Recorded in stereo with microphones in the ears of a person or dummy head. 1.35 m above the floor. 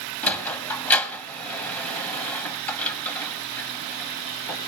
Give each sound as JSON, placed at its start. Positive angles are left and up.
{"t": 0.2, "sound": "a sliding door", "side_deg": 15, "distance_m": 1.6}